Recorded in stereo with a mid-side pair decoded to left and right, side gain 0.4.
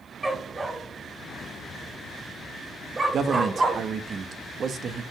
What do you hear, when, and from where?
0.2 s a dog barking: 20° right, 3 m; by 3.8 s 45° right, 1.0 m
3.1 s a man speaking: 55° right, 1.4 m